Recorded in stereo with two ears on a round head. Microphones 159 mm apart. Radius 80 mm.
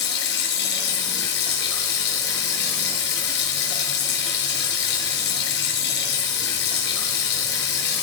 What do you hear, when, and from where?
0.0 s running water: 65° left (ahead or behind), 4.5 m